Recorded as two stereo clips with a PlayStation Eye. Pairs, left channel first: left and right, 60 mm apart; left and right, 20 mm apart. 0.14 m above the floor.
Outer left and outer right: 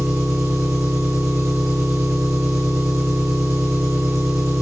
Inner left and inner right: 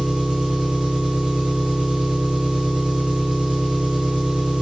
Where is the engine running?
55° right (ahead or behind), 3 m.